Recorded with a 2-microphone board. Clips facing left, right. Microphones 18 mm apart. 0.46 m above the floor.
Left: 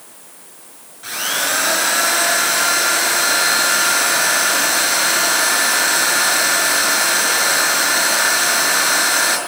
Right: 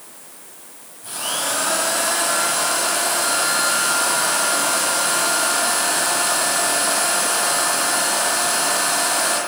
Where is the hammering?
I don't hear hammering.